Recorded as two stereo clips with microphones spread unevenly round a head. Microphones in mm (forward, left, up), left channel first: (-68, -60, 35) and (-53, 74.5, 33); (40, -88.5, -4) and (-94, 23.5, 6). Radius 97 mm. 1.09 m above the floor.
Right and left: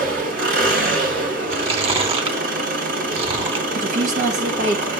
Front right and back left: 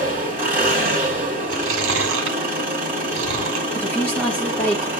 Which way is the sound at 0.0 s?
60° left.